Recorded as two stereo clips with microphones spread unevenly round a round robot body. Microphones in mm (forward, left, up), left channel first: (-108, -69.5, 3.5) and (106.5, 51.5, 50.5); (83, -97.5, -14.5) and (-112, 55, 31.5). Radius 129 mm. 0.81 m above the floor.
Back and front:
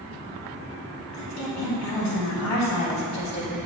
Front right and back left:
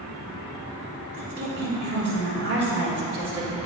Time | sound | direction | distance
1.1 | a woman speaking | 170° right | 2.5 m